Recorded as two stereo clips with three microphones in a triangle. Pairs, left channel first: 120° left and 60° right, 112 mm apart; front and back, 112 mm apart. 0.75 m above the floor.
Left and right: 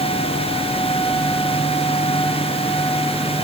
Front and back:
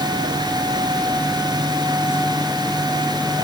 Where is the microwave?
I don't hear a microwave.